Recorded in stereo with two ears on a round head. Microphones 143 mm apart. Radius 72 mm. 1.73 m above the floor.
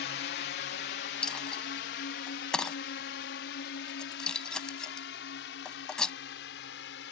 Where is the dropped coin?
5° left (ahead or behind).